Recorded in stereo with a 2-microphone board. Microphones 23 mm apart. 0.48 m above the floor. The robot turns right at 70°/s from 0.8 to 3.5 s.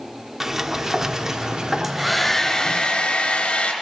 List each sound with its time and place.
0.4 s a sliding door: 15° right (ahead or behind), 0.9 m; by 2.8 s centre (ahead or behind), 0.9 m
1.8 s a hair dryer: 20° right, 3 m; by 3.7 s 95° left, 3 m